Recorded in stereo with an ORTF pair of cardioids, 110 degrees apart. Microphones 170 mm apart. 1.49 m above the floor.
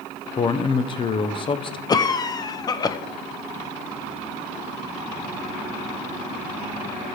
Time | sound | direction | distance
0.4 | a man speaking | 30° left | 0.8 m
1.9 | a cough | 25° left | 0.7 m